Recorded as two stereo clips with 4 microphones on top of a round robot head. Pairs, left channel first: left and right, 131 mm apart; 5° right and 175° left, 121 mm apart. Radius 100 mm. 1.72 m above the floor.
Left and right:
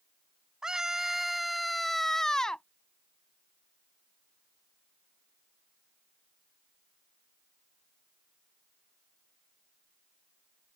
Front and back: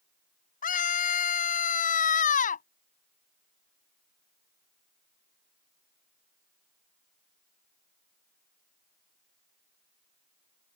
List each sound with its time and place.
0.6 s a scream: 5° right; by 2.6 s 5° left